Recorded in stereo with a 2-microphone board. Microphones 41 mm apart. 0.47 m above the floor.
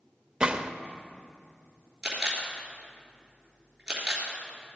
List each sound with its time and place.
0.4 s a gunshot: 25° right (ahead or behind), 0.6 m
2.0 s a camera shutter: 15° right (ahead or behind), 3 m